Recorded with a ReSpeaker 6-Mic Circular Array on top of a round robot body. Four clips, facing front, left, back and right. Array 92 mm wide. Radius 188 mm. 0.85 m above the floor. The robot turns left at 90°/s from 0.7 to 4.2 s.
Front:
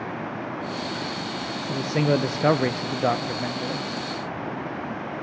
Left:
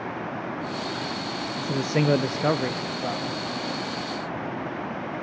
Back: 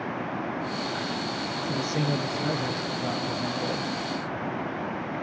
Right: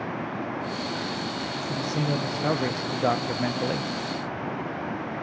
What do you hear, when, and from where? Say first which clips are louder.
1.6 s a man speaking: left 6 dB, front 4 dB; 95° left, 0.5 m; by 3.9 s 110° right, 0.5 m